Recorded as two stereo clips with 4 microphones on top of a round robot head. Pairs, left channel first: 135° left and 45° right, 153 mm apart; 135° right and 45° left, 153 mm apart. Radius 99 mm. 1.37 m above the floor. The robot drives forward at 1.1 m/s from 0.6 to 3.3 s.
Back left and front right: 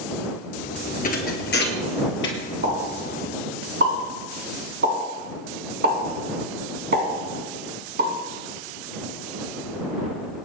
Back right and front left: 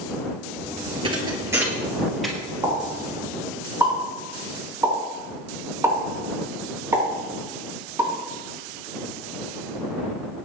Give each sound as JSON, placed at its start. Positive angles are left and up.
{"t": 1.0, "sound": "a thud", "azimuth_deg": 105, "distance_m": 2.0}
{"t": 2.6, "sound": "a pop", "azimuth_deg": -25, "distance_m": 5.5}